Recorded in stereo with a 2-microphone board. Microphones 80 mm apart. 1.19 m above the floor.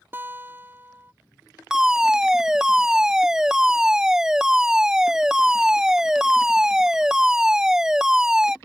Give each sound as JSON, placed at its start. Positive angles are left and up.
{"t": 0.1, "sound": "a guitar", "side_deg": -25}
{"t": 1.7, "sound": "a fire alarm", "side_deg": -5}